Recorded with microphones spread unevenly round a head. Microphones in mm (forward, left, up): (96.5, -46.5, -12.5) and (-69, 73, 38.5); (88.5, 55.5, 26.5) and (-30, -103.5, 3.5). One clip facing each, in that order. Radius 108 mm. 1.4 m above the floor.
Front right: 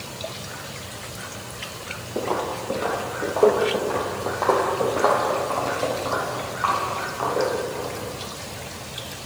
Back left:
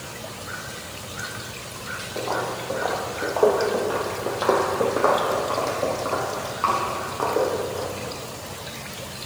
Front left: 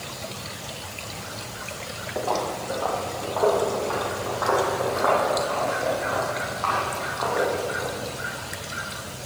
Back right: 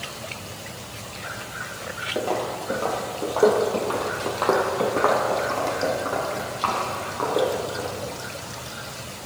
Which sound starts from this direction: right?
Footsteps, at 2.1 s.